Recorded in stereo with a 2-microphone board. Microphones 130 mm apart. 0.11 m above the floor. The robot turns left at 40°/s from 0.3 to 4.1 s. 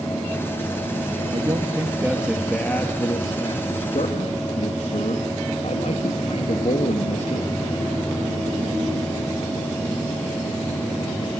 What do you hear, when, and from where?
1.3 s a man speaking: 135° right, 2.5 m; by 7.5 s 115° left, 2.5 m